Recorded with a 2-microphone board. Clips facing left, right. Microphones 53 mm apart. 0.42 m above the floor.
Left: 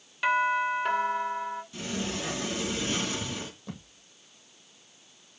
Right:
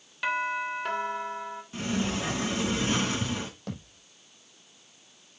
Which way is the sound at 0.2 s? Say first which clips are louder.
Left 4 dB; 5° left (ahead or behind).